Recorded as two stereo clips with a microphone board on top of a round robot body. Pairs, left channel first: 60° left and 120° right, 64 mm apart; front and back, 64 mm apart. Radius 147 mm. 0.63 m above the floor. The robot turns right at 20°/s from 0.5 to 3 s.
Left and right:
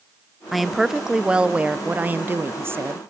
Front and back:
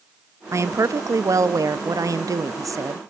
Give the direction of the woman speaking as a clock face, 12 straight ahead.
7 o'clock.